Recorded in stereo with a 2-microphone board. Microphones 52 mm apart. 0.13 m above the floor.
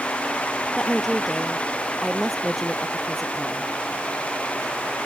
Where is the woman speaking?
Centre (ahead or behind).